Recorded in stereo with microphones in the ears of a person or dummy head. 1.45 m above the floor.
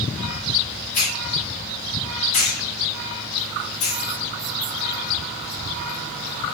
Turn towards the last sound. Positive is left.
turn(degrees=40)  # may be behind; listen again after turning